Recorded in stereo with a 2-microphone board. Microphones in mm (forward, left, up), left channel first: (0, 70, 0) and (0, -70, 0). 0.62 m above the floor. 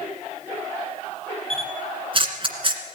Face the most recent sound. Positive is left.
turn(degrees=-40)  # may be behind; listen again after turning